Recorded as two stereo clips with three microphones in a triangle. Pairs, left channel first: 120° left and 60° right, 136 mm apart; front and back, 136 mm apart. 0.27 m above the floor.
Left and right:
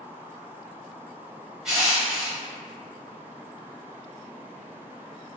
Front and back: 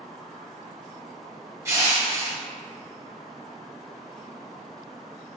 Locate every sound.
1.6 s crushing: 140° right, 0.7 m